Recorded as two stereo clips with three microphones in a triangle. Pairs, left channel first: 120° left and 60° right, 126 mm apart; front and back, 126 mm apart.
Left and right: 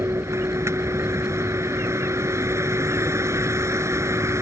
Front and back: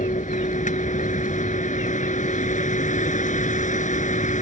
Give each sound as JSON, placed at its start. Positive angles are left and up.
{"t": 0.0, "sound": "a vehicle", "azimuth_deg": 10}